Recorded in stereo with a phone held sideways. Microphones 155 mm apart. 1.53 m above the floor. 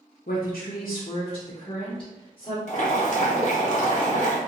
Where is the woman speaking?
65° left (ahead or behind), 0.5 m; by 2.6 s 30° left (ahead or behind), 1.3 m.